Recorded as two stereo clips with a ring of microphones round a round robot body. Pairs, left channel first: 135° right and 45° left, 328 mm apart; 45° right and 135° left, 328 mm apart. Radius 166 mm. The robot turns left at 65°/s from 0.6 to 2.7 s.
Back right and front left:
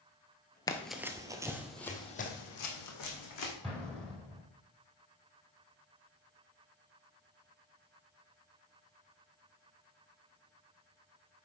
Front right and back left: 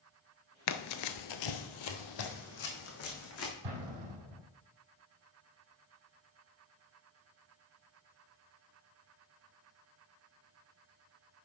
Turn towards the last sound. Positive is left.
turn(degrees=135)